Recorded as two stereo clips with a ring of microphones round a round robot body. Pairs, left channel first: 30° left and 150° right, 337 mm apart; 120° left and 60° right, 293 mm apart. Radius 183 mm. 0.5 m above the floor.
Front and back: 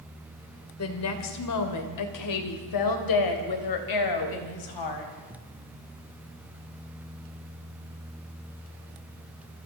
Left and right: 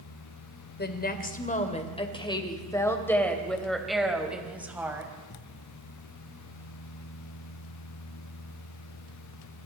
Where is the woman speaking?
70° left, 2.5 m; by 5.1 s 20° left, 4.5 m.